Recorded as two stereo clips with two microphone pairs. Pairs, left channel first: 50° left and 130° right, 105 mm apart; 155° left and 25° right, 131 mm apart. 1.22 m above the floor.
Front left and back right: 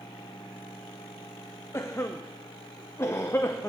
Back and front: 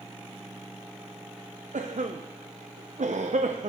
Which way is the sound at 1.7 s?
15° right.